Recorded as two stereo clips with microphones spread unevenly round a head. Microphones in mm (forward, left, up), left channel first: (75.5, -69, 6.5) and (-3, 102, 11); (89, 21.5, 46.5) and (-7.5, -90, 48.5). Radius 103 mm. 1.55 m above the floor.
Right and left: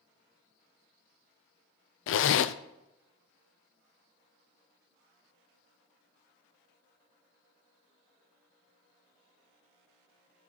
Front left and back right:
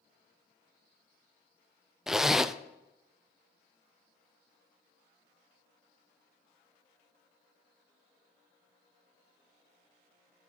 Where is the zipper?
45° right, 0.5 m.